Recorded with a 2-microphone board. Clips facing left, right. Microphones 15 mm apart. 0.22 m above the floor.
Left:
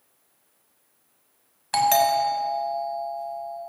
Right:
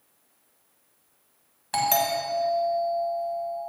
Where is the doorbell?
20° left (ahead or behind), 1.6 m.